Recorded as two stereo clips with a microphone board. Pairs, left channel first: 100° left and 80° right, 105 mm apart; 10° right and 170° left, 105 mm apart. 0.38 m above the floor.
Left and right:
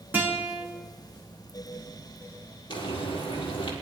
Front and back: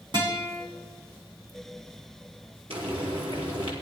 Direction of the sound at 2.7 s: 140° left.